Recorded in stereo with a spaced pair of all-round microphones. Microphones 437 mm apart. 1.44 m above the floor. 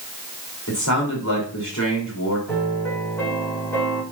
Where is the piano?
5° left (ahead or behind), 4.5 m.